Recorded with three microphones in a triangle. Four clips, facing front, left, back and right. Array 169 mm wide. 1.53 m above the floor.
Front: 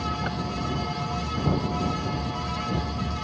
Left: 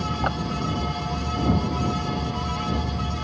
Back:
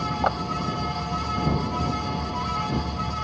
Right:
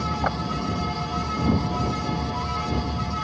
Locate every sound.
0.2 s a clap: 175° right